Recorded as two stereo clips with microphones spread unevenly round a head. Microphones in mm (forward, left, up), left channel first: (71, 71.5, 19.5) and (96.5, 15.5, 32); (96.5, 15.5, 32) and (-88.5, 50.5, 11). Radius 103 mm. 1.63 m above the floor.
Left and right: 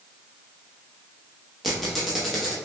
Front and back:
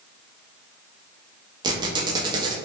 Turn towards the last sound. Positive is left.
turn(degrees=-130)